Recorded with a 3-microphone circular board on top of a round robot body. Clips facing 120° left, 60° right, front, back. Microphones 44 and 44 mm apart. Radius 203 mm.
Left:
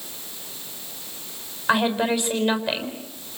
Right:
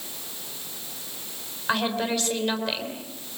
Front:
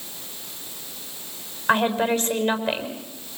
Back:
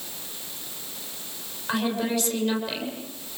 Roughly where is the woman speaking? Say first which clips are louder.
Left 5 dB, front 6 dB; ahead left.